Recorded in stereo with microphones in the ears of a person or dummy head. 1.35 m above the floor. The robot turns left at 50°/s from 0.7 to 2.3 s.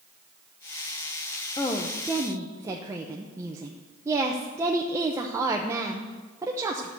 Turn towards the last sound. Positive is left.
turn(degrees=-15)